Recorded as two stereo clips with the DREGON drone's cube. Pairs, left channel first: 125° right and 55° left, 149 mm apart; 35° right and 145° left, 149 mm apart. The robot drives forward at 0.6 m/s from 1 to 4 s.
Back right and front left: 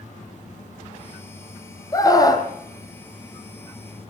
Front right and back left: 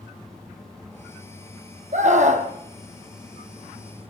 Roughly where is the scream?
Behind.